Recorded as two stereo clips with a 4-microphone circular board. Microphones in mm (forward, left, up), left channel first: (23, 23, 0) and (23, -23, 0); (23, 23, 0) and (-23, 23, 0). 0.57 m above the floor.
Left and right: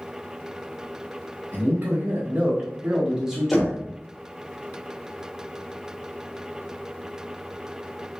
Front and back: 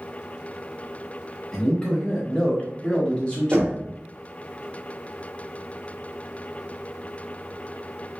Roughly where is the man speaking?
Ahead right.